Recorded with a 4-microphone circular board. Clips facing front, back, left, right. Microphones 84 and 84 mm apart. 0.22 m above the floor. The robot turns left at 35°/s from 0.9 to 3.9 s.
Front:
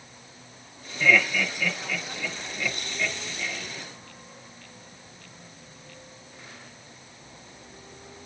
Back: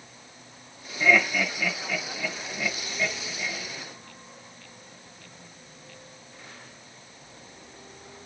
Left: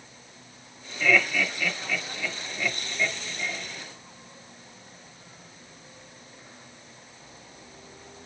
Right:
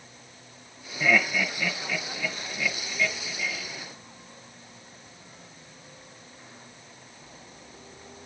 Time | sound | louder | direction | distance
1.0 | laughter | even, even | 135° right | 1.7 m